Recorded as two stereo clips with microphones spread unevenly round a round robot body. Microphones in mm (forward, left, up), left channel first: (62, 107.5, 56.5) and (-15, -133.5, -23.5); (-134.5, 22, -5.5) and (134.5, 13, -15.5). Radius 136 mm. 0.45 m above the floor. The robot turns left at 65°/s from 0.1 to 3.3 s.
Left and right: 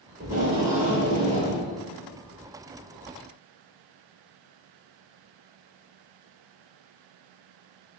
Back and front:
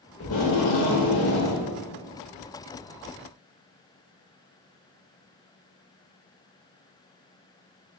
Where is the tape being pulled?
140° right, 0.9 m; by 1.6 s 125° left, 0.9 m.